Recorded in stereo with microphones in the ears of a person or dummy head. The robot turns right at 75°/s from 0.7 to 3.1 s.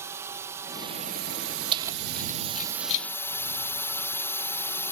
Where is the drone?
170° right; by 4.9 s 10° left.